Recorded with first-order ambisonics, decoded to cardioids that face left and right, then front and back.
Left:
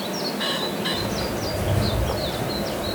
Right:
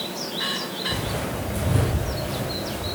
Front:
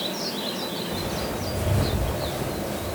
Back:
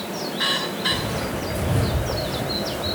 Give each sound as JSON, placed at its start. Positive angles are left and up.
{"t": 0.9, "sound": "footsteps", "azimuth_deg": -125, "distance_m": 1.9}